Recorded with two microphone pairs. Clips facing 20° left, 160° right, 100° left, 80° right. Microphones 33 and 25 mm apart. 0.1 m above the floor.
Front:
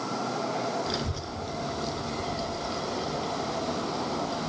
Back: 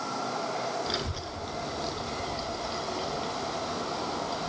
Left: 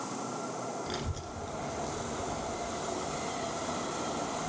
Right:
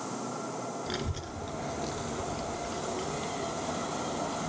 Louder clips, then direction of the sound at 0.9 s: Front 1 dB, right 2 dB; 125° right.